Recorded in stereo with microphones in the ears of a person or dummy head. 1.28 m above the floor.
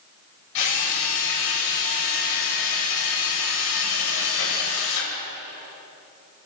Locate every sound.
0.6 s a drill: 75° left (ahead or behind), 8 m